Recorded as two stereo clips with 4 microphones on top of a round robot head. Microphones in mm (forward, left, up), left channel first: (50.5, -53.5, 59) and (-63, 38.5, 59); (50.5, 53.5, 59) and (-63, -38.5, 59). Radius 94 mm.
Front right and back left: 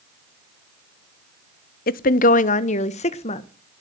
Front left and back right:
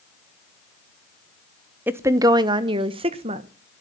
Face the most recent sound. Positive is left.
turn(degrees=-90)